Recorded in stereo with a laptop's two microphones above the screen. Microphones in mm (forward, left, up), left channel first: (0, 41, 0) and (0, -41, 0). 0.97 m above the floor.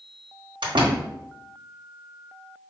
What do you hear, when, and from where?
0.6 s a door slam: 80° right, 1.4 m